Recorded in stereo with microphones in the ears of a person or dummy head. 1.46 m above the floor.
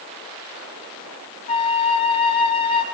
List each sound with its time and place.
1.5 s a flute: 30° left (ahead or behind), 0.9 m